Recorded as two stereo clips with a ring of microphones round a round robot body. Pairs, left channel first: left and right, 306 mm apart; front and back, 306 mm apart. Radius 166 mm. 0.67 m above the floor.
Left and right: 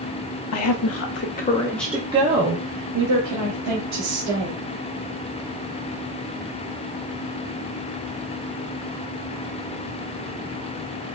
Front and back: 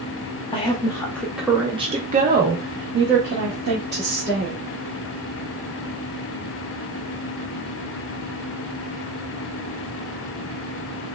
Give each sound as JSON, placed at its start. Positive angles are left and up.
{"t": 0.5, "sound": "a woman speaking", "azimuth_deg": 70, "distance_m": 1.0}